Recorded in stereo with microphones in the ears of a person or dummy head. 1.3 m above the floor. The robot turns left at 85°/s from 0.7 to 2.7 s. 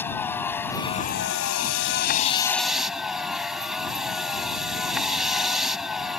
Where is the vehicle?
170° left; by 6.2 s straight ahead.